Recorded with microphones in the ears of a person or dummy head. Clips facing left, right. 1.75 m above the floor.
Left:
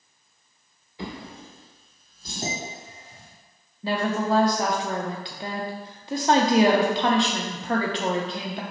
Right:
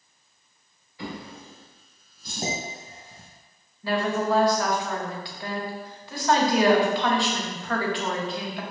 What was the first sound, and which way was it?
A drawer, 20° left (ahead or behind).